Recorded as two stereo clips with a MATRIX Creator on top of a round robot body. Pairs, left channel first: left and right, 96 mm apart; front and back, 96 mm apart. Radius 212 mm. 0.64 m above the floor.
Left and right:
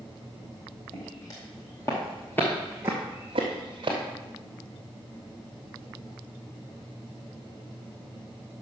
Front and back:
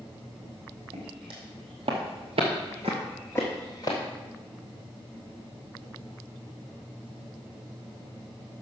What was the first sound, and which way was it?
Footsteps, 150° left.